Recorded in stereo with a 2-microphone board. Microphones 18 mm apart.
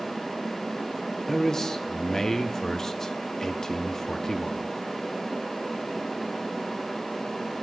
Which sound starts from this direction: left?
A man speaking, at 1.3 s.